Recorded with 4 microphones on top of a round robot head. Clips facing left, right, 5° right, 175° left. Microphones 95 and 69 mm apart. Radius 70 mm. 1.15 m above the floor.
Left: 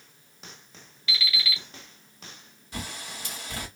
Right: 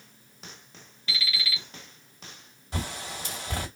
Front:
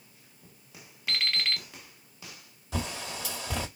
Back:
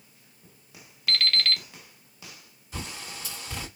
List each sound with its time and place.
1.1 s an alarm clock: 65° left, 1.3 m
2.7 s a bird: 25° right, 1.1 m